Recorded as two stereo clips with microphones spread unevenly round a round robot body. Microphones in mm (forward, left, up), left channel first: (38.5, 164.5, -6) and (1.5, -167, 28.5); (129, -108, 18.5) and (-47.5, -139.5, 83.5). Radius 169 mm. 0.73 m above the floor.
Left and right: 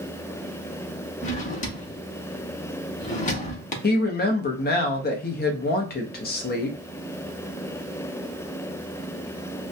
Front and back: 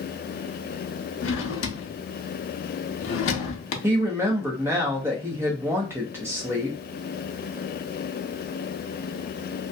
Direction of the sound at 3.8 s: 90° left.